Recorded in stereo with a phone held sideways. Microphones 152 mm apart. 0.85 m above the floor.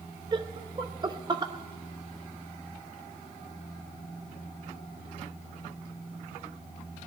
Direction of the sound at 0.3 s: 30° right (ahead or behind).